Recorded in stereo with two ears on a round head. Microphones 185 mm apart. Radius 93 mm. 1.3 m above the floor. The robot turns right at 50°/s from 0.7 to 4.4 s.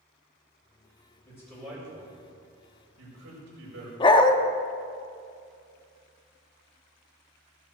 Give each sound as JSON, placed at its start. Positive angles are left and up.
{"t": 1.2, "sound": "a man speaking", "side_deg": 15, "distance_m": 5.5}
{"t": 4.0, "sound": "a dog barking", "side_deg": 25, "distance_m": 0.8}